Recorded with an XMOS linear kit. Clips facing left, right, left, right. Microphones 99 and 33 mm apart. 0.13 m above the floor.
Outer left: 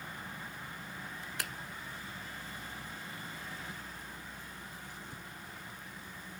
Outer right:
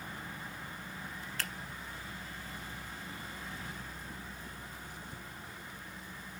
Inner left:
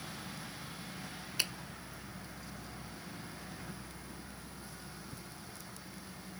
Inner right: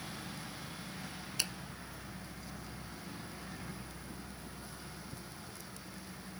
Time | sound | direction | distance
1.4 | a finger snap | 15° left (ahead or behind) | 1.1 m